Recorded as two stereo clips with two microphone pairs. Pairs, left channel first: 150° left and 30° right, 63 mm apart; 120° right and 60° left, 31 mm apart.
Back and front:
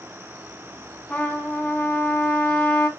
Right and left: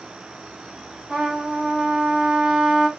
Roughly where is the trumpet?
Left.